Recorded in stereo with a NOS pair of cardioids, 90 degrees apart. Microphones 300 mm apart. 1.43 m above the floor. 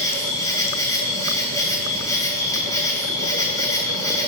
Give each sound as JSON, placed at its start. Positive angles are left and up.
{"t": 0.0, "sound": "an insect", "azimuth_deg": 10, "distance_m": 2.0}